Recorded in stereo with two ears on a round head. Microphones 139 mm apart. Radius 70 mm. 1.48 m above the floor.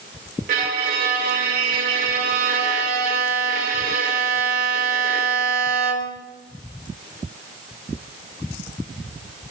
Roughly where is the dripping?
No dripping in this recording.